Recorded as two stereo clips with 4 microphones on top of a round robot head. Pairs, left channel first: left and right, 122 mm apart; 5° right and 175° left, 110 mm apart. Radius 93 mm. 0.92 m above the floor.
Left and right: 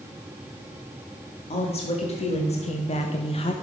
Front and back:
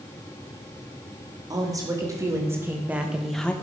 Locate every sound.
1.5 s a woman speaking: 120° left, 2.5 m; by 3.5 s 70° left, 0.9 m